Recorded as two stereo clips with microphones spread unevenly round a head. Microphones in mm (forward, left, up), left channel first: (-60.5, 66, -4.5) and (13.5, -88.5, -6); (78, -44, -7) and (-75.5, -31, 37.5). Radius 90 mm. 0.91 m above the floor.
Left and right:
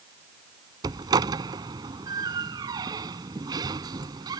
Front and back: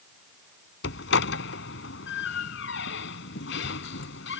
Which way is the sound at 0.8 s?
5° left.